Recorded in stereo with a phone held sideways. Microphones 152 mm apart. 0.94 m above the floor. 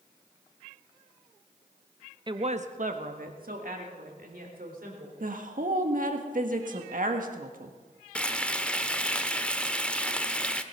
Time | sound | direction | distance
2.3 | a woman speaking | 30° right (ahead or behind) | 0.7 m
5.2 | a woman speaking | 65° right (ahead or behind) | 1.5 m
8.2 | frying | 5° left (ahead or behind) | 0.7 m